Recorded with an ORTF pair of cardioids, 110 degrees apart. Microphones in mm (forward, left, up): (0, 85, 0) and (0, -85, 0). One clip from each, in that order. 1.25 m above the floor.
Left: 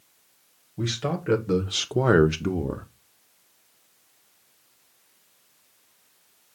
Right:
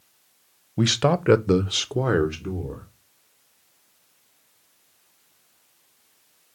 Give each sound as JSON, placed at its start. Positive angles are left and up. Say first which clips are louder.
{"t": 0.8, "sound": "a man speaking", "louder": "right 8 dB", "azimuth_deg": -65, "distance_m": 0.8}